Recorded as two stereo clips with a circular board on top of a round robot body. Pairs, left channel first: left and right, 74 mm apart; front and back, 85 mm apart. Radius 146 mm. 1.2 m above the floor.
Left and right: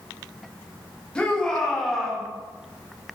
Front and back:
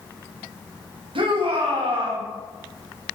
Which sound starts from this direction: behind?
A shout, at 1.1 s.